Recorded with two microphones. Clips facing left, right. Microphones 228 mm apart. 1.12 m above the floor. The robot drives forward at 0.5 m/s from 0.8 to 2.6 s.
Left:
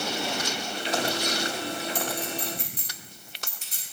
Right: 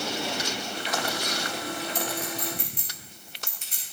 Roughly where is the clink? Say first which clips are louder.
Left 1 dB; left.